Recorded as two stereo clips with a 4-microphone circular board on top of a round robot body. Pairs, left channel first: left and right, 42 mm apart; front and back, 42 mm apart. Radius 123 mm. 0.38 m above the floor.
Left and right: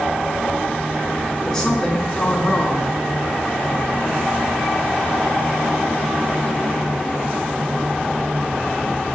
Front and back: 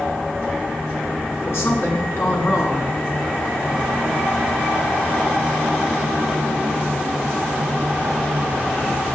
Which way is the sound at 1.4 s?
15° left.